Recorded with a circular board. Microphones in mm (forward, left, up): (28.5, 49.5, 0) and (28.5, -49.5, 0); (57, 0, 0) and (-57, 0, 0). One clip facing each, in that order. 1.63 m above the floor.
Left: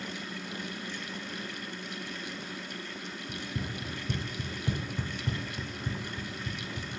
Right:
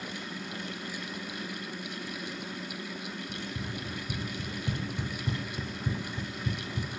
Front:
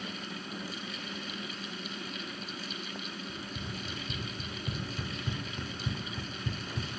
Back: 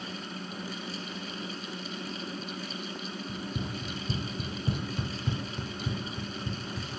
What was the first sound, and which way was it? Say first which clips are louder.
Running footsteps: even, back 5 dB; 140° left.